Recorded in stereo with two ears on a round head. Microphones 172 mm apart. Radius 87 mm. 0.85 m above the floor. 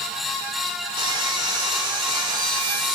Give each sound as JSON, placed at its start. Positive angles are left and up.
{"t": 1.0, "sound": "sawing", "side_deg": -25, "distance_m": 2.5}